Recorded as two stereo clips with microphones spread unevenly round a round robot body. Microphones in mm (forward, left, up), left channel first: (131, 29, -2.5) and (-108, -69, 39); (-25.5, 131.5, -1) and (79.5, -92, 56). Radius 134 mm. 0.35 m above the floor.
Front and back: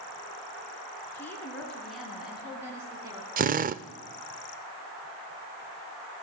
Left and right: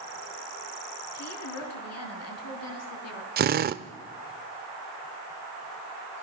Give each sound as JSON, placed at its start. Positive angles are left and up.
{"t": 1.1, "sound": "a woman speaking", "azimuth_deg": 105, "distance_m": 4.5}
{"t": 3.4, "sound": "a drill", "azimuth_deg": -110, "distance_m": 0.7}